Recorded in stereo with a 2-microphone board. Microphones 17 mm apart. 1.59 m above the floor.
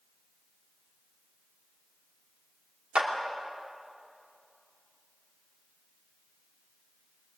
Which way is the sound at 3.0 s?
75° right (ahead or behind).